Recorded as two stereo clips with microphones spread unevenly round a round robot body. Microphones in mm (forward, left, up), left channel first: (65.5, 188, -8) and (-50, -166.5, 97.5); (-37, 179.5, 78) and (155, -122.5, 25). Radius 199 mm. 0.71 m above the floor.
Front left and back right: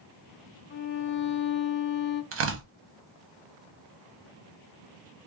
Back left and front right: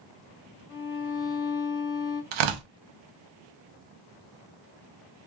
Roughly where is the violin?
Left.